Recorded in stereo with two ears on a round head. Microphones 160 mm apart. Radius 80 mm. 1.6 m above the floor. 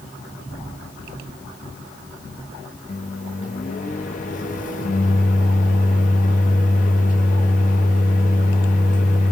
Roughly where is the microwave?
Left.